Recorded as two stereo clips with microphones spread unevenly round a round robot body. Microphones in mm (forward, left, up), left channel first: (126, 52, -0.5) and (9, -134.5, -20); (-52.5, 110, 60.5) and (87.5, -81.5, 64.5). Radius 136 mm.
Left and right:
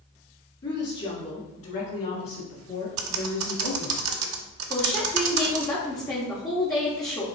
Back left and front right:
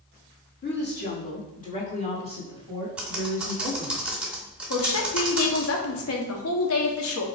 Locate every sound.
0.6 s a woman speaking: 105° left, 1.6 m; by 4.0 s 45° left, 3 m
3.0 s typing on a keyboard: 140° right, 0.5 m
4.7 s a woman speaking: 135° left, 1.0 m